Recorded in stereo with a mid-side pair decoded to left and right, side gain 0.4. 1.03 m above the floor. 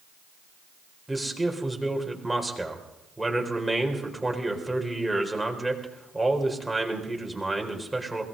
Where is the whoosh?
No whoosh in this recording.